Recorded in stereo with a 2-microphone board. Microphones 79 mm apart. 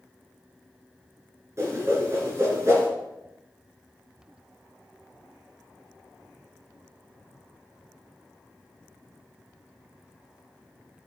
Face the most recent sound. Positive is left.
turn(degrees=-35)  # may be behind; listen again after turning